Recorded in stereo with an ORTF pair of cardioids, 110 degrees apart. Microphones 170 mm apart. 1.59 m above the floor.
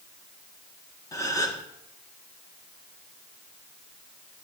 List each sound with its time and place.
1.1 s a gasp: 20° left, 1.6 m